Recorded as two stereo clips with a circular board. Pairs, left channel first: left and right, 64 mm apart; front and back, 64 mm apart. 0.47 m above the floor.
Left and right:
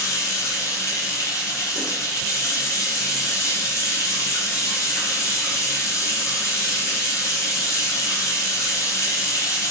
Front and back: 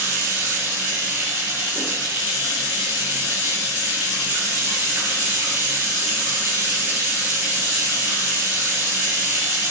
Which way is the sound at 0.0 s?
120° left.